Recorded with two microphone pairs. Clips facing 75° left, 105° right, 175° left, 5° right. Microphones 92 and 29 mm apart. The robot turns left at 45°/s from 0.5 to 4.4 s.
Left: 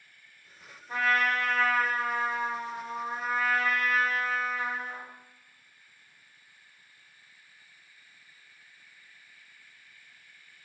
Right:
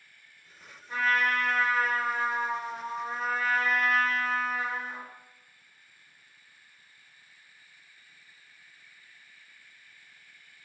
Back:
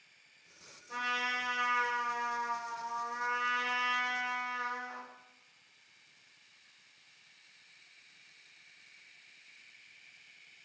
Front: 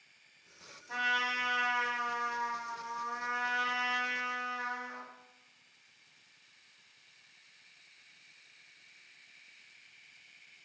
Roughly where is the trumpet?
Ahead.